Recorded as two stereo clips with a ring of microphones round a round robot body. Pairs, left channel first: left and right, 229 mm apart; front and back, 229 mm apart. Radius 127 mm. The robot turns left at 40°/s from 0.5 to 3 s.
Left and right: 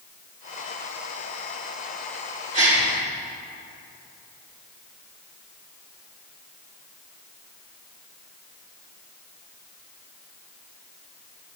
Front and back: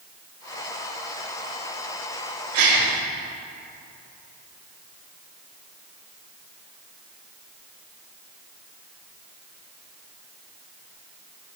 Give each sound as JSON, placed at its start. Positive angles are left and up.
{"t": 2.5, "sound": "a gasp", "azimuth_deg": -145, "distance_m": 5.5}